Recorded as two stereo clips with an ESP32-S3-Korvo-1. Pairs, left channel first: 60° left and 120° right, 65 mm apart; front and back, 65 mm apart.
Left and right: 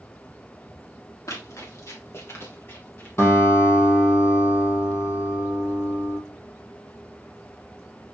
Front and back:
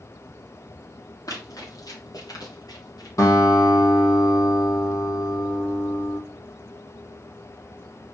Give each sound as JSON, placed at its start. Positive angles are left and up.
{"t": 1.3, "sound": "running footsteps", "azimuth_deg": 25, "distance_m": 3.0}
{"t": 3.2, "sound": "a guitar", "azimuth_deg": 20, "distance_m": 3.5}